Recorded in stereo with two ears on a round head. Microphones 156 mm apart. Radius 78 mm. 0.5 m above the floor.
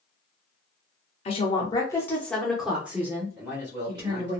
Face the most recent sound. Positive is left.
turn(degrees=-10)  # may be behind; listen again after turning